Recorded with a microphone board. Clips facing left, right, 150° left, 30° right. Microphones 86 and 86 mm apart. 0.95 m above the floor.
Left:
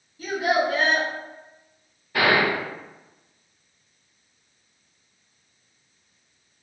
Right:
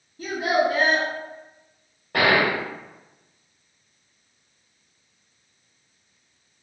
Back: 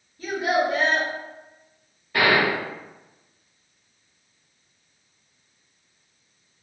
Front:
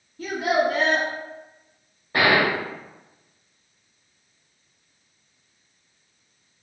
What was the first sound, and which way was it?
A child speaking, 45° right.